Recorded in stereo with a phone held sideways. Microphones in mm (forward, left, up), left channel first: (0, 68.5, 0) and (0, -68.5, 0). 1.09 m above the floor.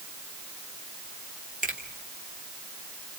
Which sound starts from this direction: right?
A finger snap, at 1.6 s.